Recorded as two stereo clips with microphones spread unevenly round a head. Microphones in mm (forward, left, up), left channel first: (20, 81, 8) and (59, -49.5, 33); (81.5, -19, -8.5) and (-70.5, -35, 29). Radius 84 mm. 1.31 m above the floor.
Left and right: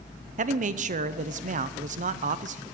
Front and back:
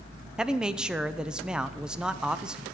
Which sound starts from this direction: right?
A man speaking, at 0.4 s.